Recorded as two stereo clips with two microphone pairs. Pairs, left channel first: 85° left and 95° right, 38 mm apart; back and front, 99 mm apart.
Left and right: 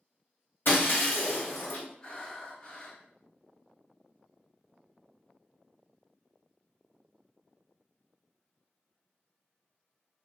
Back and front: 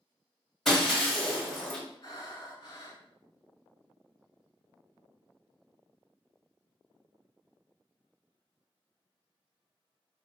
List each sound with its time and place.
0.7 s breaking glass: 95° left, 1.2 m
2.0 s breathing: 140° left, 0.9 m